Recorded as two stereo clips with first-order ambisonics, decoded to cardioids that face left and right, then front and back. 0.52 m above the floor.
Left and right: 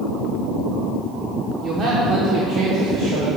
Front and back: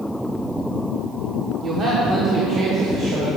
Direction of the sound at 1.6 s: 130° right.